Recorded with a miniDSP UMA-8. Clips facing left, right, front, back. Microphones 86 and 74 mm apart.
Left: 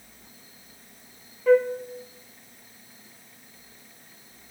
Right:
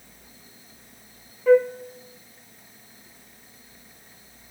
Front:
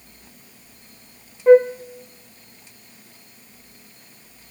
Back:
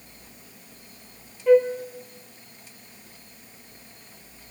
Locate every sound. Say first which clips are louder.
1.5 s a flute: right 2 dB, front 5 dB; 5° right, 0.5 m